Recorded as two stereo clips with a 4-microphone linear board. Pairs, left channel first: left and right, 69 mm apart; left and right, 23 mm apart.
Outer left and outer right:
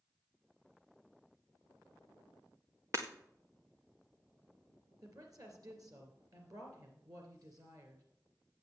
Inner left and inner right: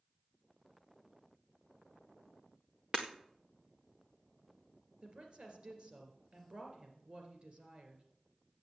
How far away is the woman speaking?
About 2.5 m.